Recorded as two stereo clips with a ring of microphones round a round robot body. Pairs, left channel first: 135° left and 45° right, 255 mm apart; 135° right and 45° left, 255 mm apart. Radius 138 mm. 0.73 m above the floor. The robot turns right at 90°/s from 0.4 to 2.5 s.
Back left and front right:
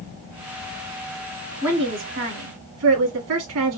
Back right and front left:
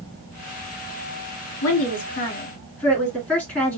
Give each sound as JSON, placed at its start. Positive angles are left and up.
{"t": 1.6, "sound": "a woman speaking", "azimuth_deg": -130, "distance_m": 2.0}